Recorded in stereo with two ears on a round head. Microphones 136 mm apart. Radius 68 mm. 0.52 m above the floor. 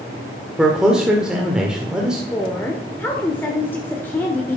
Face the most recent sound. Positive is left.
turn(degrees=15)  # may be behind; listen again after turning